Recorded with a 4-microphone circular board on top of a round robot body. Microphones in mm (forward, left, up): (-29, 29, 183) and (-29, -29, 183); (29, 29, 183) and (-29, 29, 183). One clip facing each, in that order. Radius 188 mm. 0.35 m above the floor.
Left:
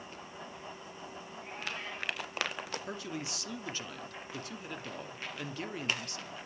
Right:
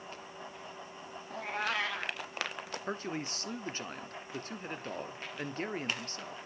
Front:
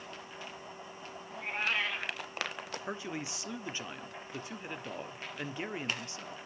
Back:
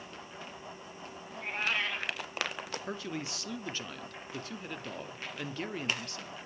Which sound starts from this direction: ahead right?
A man speaking, at 2.9 s.